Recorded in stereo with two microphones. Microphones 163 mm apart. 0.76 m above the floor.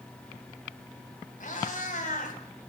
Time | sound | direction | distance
1.4 | a cat meowing | 50° left (ahead or behind) | 2 m